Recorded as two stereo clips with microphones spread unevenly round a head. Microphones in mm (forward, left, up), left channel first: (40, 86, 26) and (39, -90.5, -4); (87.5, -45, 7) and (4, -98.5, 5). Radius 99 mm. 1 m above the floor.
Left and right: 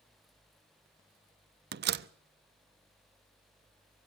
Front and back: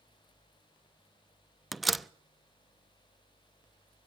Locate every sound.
1.7 s a door slam: 60° right, 0.7 m